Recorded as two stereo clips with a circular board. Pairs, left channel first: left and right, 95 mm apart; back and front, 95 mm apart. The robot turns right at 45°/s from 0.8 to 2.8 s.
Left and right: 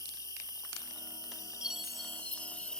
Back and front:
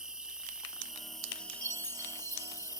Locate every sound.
0.0 s an insect: 75° left; by 2.8 s 165° left
1.6 s a chime: 15° right; by 2.7 s 35° left